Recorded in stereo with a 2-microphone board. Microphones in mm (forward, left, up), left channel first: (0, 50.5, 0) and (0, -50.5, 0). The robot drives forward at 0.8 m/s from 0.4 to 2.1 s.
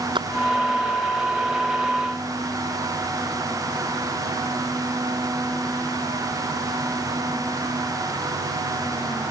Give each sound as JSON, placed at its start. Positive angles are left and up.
{"t": 0.1, "sound": "a splash", "side_deg": -60}